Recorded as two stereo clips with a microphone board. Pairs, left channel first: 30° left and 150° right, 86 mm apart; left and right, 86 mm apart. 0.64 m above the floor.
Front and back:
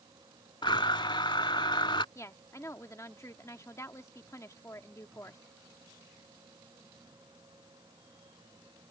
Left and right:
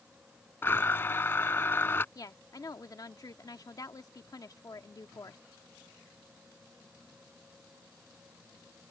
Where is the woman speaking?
70° left.